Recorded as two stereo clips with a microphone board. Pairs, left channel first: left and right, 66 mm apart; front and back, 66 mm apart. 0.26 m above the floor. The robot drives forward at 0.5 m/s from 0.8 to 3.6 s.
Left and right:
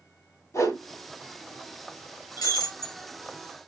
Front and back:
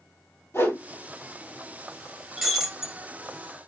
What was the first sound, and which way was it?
A whoosh, 50° left.